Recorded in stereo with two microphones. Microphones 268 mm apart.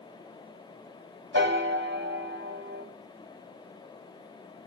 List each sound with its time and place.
1.3 s a piano: 40° right (ahead or behind), 2.5 m